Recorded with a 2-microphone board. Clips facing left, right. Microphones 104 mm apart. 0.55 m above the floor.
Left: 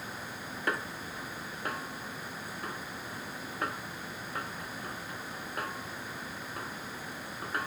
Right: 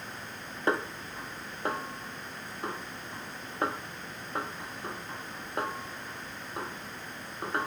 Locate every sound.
0.7 s a snare drum: 30° right (ahead or behind)